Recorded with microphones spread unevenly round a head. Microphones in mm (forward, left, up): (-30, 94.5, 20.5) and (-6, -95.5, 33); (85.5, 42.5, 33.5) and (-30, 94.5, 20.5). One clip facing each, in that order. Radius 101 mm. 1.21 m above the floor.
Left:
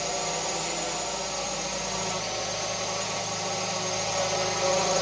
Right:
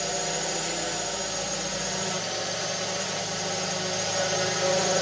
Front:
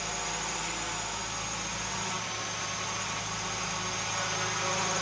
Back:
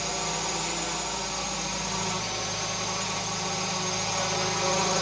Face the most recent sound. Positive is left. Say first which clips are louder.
# right 1 dB, back 5 dB
turn(degrees=-160)